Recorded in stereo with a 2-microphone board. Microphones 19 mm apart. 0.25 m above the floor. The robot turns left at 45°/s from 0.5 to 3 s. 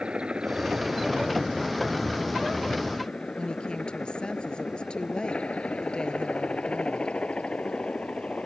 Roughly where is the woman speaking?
Left.